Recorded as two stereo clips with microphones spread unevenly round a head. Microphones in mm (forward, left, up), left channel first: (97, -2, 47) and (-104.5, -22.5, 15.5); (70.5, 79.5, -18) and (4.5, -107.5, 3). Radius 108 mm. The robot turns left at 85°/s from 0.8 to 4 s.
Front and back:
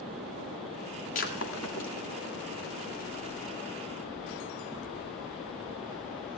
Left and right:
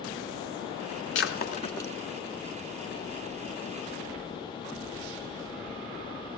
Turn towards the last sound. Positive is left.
turn(degrees=170)